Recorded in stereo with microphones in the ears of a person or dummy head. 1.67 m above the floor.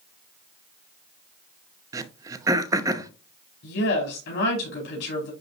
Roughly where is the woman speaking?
Left.